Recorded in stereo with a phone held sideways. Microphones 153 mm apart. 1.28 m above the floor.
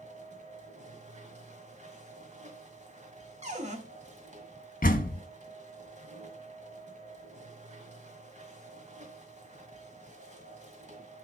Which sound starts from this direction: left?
A door slam, at 4.8 s.